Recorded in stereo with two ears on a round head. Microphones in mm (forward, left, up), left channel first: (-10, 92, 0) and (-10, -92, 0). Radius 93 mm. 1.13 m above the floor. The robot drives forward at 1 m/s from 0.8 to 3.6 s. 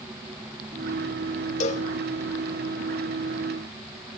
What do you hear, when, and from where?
1.6 s a cowbell: 30° left (ahead or behind), 1.4 m; by 1.9 s 40° left (ahead or behind), 1.2 m